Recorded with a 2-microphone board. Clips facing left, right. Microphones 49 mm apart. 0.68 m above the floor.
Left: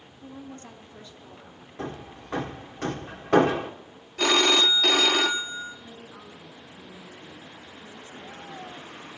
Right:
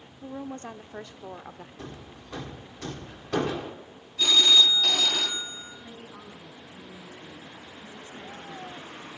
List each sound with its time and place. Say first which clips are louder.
0.2 s a woman speaking: right 5 dB; 35° right (ahead or behind), 1.5 m; by 1.7 s 70° right (ahead or behind), 1.7 m
1.8 s hammering: left 10 dB; 45° left (ahead or behind), 1.3 m
4.2 s a phone ringing: left 1 dB; 60° left (ahead or behind), 0.7 m
5.8 s a woman speaking: even; 25° right (ahead or behind), 6.5 m